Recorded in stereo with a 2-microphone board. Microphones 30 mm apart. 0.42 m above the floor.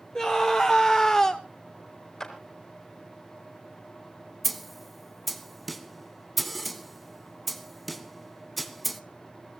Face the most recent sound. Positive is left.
turn(degrees=5)  # may be behind; listen again after turning